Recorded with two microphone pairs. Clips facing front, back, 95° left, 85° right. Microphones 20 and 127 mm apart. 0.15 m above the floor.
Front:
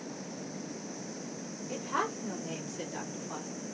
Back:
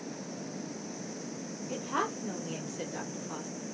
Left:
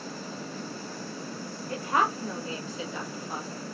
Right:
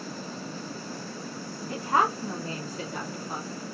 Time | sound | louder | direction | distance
1.7 | a woman speaking | even, right 2 dB | 85° right | 1.1 m